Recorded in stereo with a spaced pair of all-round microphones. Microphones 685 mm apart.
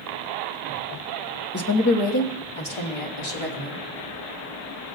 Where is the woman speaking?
20° left (ahead or behind), 1.0 m; by 3.9 s 45° left (ahead or behind), 4 m.